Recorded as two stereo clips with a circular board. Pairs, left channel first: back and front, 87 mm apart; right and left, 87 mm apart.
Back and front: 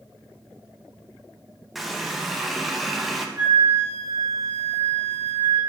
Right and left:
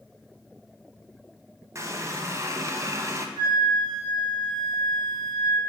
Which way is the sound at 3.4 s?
65° left.